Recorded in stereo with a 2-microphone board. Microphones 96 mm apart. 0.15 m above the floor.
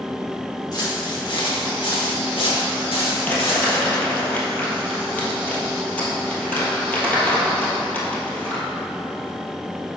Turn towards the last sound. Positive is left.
turn(degrees=20)  # may be behind; listen again after turning